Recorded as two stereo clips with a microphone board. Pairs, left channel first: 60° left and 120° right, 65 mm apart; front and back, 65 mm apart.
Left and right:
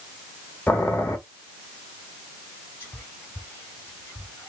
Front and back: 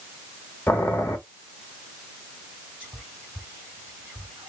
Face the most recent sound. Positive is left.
turn(degrees=115)